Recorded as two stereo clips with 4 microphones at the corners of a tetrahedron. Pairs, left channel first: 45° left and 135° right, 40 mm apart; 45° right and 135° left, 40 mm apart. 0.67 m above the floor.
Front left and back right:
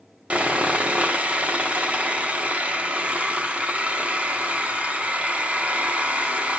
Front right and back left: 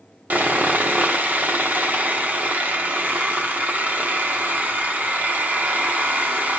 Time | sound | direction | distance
0.3 | sawing | 170° left | 1.2 m